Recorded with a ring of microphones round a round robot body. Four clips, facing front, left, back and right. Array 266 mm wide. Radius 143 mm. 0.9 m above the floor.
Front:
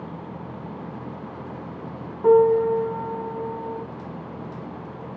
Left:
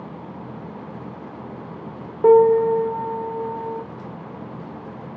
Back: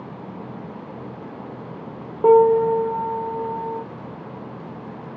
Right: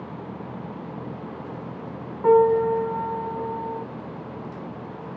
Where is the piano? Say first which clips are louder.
Left 4 dB, back 2 dB; 145° left, 1.1 m.